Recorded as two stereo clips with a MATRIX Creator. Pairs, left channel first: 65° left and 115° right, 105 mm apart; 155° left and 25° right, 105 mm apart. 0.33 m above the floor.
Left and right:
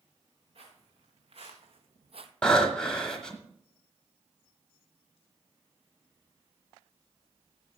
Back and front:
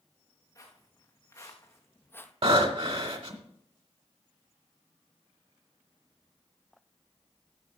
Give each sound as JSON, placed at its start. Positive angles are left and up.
{"t": 0.6, "sound": "footsteps", "azimuth_deg": -145, "distance_m": 3.0}
{"t": 2.4, "sound": "breathing", "azimuth_deg": -15, "distance_m": 1.2}